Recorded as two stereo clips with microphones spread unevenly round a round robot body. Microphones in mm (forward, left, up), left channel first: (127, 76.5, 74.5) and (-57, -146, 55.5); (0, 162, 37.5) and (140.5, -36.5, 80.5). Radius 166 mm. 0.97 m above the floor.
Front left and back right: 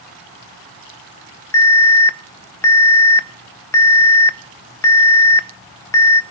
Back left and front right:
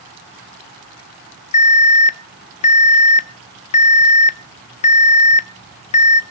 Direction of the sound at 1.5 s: 130° left.